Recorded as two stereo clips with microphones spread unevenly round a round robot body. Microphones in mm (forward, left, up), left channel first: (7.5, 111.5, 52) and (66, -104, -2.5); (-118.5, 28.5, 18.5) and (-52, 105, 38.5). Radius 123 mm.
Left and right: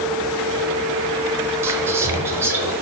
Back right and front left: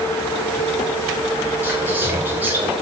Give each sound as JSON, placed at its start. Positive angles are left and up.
{"t": 1.6, "sound": "whispering", "azimuth_deg": -30, "distance_m": 0.9}